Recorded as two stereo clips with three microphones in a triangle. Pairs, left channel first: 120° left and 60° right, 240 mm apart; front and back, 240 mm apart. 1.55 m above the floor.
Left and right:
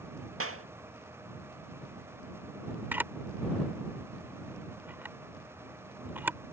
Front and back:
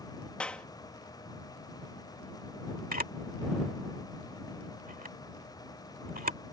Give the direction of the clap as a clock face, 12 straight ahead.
3 o'clock.